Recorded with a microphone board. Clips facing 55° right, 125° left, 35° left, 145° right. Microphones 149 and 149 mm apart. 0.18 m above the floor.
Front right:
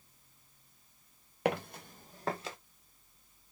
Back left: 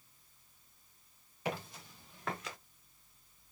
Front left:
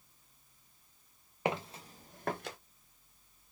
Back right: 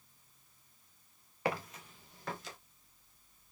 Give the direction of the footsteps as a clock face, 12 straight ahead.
1 o'clock.